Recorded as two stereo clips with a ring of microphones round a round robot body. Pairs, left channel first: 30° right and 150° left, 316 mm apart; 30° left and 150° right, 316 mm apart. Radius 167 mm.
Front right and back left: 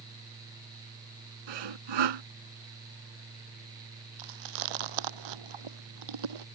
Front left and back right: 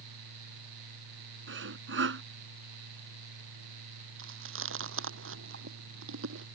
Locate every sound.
1.5 s sawing: 155° left
4.2 s chewing: 155° left